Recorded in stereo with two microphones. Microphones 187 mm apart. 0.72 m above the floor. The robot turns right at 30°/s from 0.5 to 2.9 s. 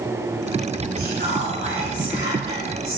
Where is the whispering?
120° right, 1.2 m; by 3.0 s 60° right, 1.2 m.